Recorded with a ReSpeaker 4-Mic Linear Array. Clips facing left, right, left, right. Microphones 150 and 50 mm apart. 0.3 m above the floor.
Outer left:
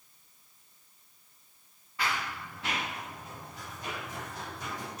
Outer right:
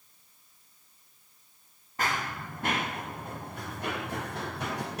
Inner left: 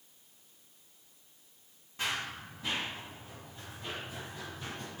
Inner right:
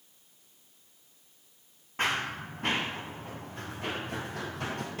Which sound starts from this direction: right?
Running footsteps, at 2.0 s.